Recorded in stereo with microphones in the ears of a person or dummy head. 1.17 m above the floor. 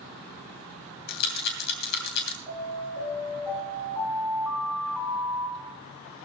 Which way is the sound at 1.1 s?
60° left (ahead or behind).